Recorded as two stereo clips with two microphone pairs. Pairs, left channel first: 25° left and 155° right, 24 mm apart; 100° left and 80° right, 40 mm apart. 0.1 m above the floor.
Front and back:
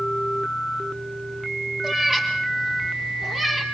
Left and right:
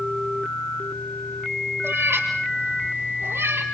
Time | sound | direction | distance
1.8 | a cat meowing | 85° right | 7 m